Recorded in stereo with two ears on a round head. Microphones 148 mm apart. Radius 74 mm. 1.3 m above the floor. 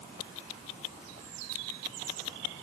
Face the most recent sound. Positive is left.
No sound to turn to.